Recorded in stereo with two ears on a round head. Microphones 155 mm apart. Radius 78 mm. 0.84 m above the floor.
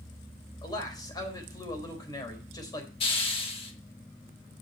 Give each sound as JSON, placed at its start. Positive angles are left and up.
{"t": 0.6, "sound": "a man speaking", "side_deg": 25, "distance_m": 3.5}
{"t": 3.0, "sound": "a hiss", "side_deg": 35, "distance_m": 1.6}